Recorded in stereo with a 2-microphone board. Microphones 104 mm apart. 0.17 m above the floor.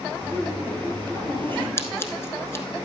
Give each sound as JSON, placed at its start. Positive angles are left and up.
{"t": 0.2, "sound": "laughter", "side_deg": 20, "distance_m": 4.5}
{"t": 1.8, "sound": "scissors", "side_deg": 25, "distance_m": 1.0}